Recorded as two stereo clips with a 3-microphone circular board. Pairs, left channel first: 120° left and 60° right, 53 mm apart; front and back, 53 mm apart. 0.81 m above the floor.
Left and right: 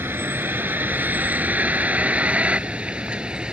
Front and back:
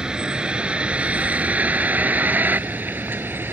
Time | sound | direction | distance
0.0 | a vehicle | 105° right | ?